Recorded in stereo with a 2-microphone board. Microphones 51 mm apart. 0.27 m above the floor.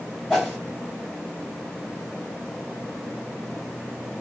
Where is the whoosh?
Centre (ahead or behind), 1.6 m.